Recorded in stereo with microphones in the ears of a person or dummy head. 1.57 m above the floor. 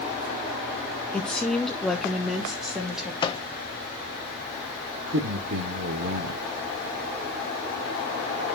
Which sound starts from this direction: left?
A microwave, at 3.2 s.